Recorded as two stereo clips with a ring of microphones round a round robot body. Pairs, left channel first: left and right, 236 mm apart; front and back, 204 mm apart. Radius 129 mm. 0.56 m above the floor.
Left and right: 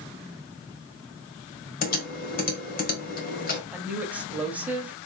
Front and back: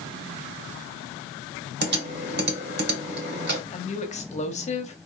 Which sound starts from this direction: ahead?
A woman speaking, at 3.7 s.